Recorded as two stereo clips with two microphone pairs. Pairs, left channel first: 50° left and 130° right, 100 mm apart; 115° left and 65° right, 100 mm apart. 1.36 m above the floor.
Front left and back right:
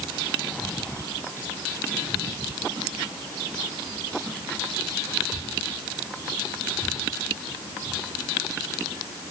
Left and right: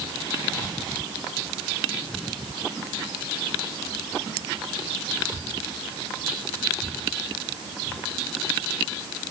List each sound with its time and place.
Only background noise.